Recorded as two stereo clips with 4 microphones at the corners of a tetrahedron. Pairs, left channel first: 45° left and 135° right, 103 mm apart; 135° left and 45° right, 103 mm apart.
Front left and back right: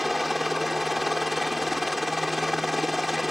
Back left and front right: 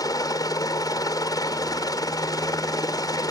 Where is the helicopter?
135° left.